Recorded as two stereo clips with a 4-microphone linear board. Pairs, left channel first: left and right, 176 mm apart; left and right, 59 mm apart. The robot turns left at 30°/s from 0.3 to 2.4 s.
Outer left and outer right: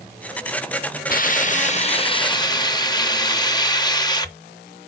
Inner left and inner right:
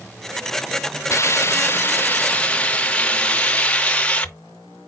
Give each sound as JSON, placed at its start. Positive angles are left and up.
{"t": 1.1, "sound": "a hiss", "azimuth_deg": 65, "distance_m": 0.6}